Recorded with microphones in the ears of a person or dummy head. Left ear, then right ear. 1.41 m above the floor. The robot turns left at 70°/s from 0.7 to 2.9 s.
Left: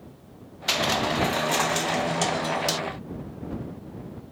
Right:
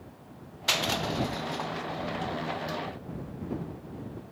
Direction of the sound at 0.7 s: 5° right (ahead or behind).